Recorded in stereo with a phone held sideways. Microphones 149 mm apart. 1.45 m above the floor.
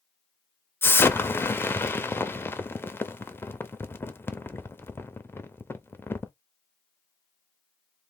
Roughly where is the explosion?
Centre.